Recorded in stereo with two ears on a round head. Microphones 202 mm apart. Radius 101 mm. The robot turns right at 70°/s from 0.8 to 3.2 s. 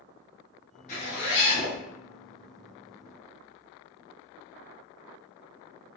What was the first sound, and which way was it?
A zipper, 45° left.